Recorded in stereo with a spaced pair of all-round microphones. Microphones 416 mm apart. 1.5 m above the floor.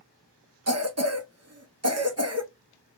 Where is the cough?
35° right (ahead or behind), 0.7 m.